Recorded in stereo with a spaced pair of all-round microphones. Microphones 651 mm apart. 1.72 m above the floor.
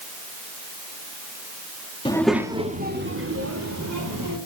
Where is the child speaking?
10° left (ahead or behind), 1.8 m; by 4.4 s 30° right (ahead or behind), 4.5 m.